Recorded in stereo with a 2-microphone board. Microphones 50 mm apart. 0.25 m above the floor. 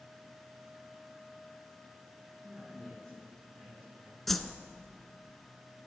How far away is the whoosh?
About 0.5 m.